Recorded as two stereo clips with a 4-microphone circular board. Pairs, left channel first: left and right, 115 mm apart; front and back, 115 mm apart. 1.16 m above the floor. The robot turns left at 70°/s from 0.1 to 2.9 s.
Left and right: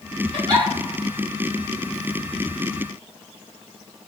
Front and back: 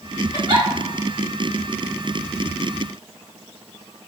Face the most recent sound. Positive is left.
turn(degrees=55)